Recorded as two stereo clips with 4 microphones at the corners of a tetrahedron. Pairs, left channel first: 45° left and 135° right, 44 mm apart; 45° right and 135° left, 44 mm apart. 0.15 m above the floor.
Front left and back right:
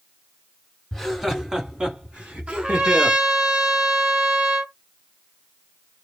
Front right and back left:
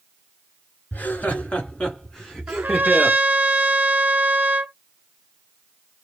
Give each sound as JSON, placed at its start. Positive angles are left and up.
{"t": 0.9, "sound": "laughter", "azimuth_deg": -40, "distance_m": 1.5}
{"t": 2.5, "sound": "a trumpet", "azimuth_deg": 160, "distance_m": 0.7}